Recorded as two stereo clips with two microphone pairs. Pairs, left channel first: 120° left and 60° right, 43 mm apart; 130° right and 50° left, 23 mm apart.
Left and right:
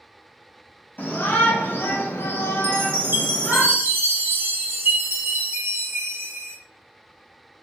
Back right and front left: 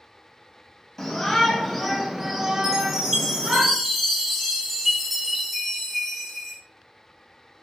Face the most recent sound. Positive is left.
turn(degrees=-30)